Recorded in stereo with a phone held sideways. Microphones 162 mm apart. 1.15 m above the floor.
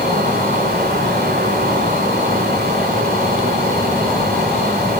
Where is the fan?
80° right, 3 m.